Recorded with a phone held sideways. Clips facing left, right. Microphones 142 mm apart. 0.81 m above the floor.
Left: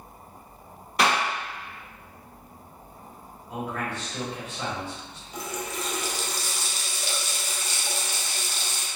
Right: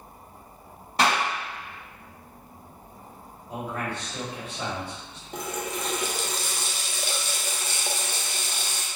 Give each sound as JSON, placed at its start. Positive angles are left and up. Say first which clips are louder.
{"t": 1.0, "sound": "a clap", "louder": "even", "side_deg": -30, "distance_m": 1.7}
{"t": 3.5, "sound": "a man speaking", "louder": "even", "side_deg": -30, "distance_m": 1.6}
{"t": 5.3, "sound": "a running tap", "louder": "right 2 dB", "side_deg": -50, "distance_m": 0.5}